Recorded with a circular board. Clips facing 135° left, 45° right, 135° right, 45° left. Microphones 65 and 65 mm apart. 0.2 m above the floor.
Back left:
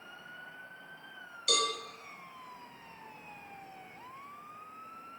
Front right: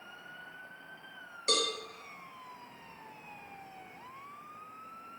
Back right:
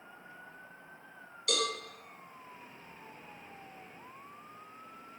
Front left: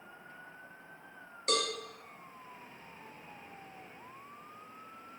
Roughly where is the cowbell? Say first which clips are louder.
Even, front left 1 dB; ahead.